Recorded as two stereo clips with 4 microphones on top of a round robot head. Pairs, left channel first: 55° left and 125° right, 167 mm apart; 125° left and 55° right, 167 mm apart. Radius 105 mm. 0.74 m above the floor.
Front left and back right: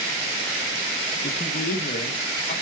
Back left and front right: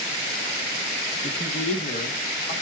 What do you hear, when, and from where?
1.2 s a man speaking: 85° left, 0.8 m